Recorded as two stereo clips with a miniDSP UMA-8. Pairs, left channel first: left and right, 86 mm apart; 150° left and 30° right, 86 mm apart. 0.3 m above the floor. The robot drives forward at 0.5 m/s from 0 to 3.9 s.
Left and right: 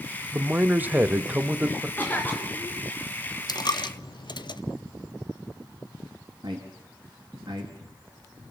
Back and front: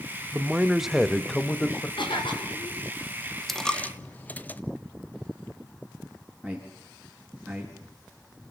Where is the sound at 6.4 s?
125° right, 4.5 m.